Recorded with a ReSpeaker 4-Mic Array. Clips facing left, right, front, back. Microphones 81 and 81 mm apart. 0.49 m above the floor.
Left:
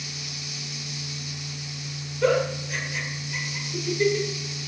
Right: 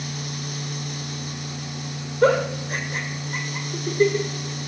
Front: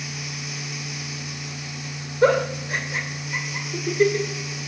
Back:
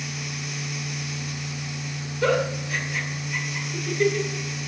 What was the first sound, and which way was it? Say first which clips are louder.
A giggle: right 3 dB, front 4 dB; 50° right.